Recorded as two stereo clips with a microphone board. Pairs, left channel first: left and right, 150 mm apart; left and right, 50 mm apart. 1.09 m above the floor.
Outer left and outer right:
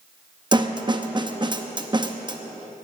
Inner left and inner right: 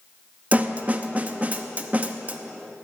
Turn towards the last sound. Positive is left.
turn(degrees=-30)  # may be behind; listen again after turning